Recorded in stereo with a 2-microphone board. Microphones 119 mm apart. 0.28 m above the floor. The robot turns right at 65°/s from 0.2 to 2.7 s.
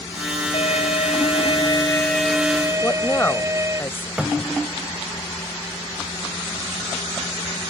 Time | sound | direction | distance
0.5 | a violin | 65° left | ?
2.8 | a woman speaking | 20° left (ahead or behind) | ?
4.2 | a cupboard door | 5° right (ahead or behind) | ?